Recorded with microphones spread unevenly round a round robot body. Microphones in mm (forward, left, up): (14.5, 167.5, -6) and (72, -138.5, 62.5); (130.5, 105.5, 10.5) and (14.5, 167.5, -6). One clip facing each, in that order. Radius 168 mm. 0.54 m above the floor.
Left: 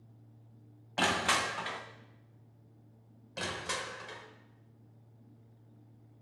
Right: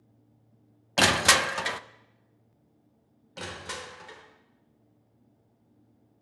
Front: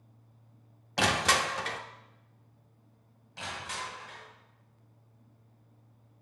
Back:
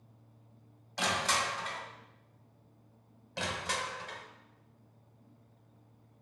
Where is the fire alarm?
No fire alarm in this recording.